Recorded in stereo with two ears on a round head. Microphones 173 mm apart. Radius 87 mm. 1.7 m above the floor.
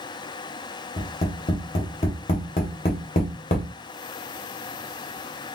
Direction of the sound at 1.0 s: 35° left (ahead or behind).